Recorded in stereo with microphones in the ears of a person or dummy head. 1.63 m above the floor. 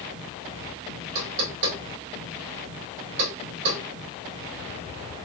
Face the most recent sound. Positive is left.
turn(degrees=-65)  # may be behind; listen again after turning